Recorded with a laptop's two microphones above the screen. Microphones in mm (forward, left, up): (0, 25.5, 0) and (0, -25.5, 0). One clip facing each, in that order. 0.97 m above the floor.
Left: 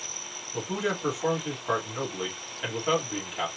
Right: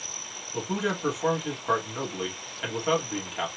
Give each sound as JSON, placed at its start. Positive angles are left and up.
{"t": 0.5, "sound": "a man speaking", "side_deg": -10, "distance_m": 2.0}